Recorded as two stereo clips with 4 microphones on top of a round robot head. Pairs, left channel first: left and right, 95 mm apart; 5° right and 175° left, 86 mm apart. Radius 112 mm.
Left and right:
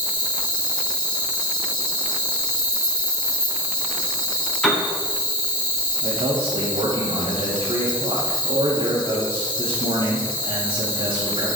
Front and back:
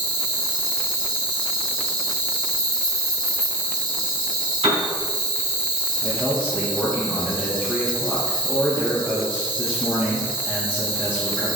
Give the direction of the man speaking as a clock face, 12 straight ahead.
3 o'clock.